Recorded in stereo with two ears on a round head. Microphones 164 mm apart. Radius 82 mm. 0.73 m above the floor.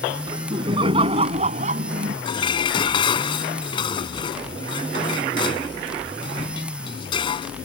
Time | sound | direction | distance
0.3 | laughter | 25° right (ahead or behind) | ?
2.2 | dishes clattering | 25° left (ahead or behind) | ?